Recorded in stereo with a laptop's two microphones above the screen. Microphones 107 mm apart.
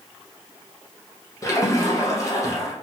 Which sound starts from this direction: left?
A splash, at 1.4 s.